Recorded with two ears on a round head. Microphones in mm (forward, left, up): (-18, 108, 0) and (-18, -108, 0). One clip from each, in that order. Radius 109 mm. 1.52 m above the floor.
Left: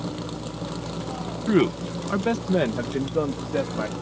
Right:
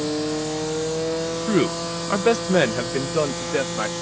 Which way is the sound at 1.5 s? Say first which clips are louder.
Left 2 dB; 5° right (ahead or behind).